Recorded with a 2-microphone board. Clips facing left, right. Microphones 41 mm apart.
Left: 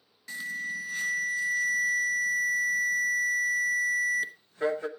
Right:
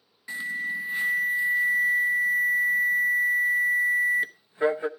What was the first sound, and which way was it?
An alarm, 20° right (ahead or behind).